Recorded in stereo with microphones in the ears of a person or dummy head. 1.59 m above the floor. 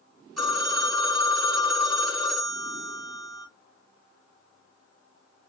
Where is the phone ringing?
Centre (ahead or behind), 1.9 m.